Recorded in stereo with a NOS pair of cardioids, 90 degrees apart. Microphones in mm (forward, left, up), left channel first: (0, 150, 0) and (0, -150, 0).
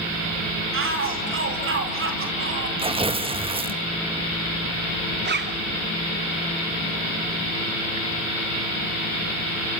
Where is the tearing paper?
20° right, 2.5 m.